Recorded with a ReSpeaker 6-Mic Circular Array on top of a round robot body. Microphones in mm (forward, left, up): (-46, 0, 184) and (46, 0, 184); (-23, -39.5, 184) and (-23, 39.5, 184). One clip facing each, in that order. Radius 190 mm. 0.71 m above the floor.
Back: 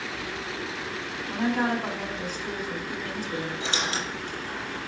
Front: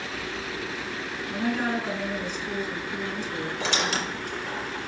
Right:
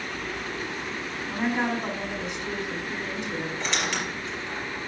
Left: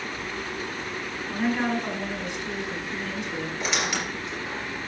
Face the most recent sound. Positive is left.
turn(degrees=10)